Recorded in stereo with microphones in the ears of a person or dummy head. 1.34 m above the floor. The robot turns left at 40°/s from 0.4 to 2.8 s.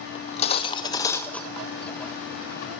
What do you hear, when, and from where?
0.1 s cutlery clinking: 50° left, 0.6 m; by 1.7 s straight ahead, 0.6 m